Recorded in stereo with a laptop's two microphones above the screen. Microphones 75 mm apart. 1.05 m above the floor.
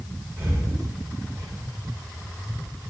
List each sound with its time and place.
0.4 s breathing: 35° right (ahead or behind), 1.2 m